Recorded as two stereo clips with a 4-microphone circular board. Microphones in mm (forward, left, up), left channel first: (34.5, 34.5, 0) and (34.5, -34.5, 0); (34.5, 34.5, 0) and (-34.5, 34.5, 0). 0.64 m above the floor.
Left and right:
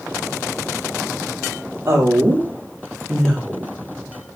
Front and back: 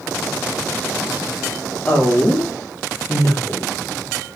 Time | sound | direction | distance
1.9 | a woman speaking | 55° right | 0.8 m